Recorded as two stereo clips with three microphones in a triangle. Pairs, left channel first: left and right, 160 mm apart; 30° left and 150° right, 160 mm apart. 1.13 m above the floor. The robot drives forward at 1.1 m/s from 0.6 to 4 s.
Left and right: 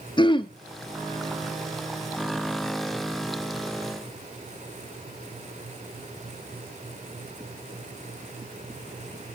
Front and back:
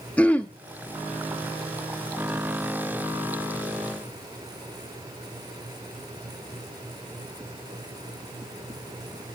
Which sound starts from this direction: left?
Throat clearing, at 0.2 s.